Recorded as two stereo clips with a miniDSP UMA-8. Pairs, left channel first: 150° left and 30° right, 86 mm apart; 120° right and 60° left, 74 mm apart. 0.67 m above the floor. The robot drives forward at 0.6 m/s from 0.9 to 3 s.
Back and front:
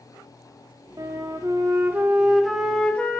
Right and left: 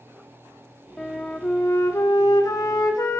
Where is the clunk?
No clunk in this recording.